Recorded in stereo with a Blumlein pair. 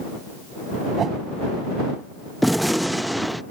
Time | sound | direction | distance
1.0 | a whoosh | 25° right | ?
2.4 | a gunshot | straight ahead | ?